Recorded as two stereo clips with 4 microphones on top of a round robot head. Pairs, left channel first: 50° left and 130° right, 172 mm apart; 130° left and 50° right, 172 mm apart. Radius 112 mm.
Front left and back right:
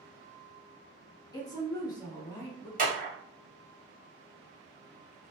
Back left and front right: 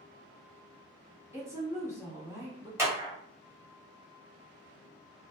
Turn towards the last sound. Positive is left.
turn(degrees=-125)